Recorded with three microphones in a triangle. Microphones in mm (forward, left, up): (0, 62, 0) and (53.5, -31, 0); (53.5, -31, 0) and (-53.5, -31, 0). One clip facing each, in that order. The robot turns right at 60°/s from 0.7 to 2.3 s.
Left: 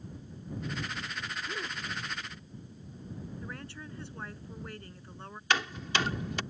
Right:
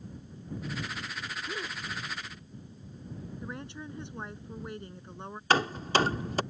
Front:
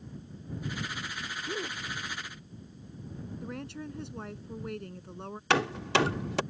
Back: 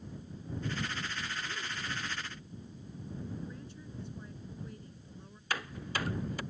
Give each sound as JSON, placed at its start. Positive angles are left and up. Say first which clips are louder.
{"t": 1.5, "sound": "a gasp", "louder": "right 1 dB, front 5 dB", "azimuth_deg": 15}
{"t": 3.4, "sound": "a woman speaking", "louder": "right 3 dB, front 7 dB", "azimuth_deg": 10}
{"t": 5.5, "sound": "hammering", "louder": "right 5 dB, front 11 dB", "azimuth_deg": -5}